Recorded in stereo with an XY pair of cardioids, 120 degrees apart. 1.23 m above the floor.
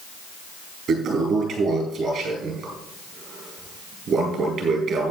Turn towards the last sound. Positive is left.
turn(degrees=-50)